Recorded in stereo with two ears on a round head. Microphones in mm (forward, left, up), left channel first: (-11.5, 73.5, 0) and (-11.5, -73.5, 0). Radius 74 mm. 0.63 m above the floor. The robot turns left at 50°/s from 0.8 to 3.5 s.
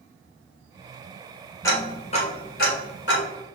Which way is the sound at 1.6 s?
15° left (ahead or behind).